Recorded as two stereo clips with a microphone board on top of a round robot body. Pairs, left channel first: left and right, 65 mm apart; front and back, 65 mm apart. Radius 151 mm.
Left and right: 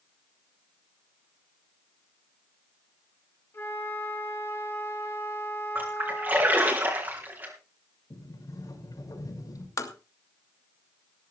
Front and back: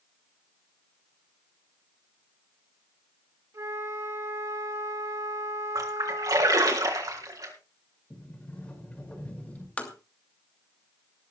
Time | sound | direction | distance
3.5 | a flute | 145° left | 4 m
5.8 | a splash | 150° right | 3.5 m
8.1 | a sliding door | 70° left | 5.5 m
9.8 | tapping | 65° left | 3 m